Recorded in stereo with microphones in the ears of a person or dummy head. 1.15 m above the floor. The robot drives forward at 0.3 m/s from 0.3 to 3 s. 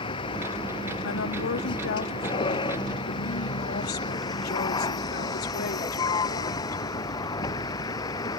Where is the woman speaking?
70° left (ahead or behind); by 6.8 s 55° left (ahead or behind).